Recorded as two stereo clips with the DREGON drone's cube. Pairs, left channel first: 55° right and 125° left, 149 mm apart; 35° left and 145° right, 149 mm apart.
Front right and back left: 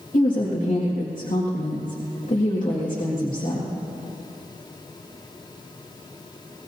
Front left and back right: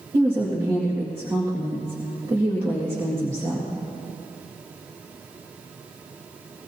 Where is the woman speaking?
80° right, 1.9 m.